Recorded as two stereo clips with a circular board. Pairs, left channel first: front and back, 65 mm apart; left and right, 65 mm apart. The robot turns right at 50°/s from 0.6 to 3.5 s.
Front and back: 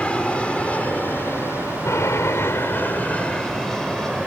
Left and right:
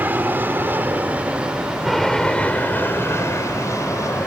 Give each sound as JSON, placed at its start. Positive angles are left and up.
{"t": 0.0, "sound": "an aircraft", "azimuth_deg": -60}